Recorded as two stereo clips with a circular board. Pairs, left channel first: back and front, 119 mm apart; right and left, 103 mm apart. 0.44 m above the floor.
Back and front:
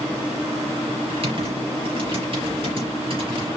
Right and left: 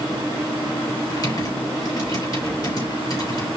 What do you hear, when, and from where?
1.1 s typing on a keyboard: 40° right, 5 m